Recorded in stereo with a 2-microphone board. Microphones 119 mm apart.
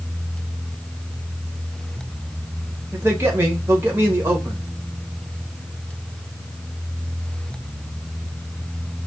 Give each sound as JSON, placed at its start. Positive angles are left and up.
{"t": 2.9, "sound": "a man speaking", "side_deg": -20, "distance_m": 0.9}